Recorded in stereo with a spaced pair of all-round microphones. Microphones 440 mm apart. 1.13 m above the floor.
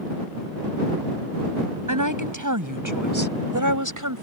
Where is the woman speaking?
45° right (ahead or behind).